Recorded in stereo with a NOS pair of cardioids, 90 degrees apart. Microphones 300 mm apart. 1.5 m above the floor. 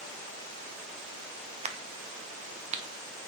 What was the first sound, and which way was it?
A crack, 20° right.